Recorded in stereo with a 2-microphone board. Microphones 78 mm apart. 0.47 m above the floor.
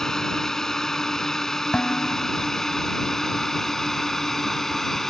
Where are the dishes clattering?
15° left (ahead or behind).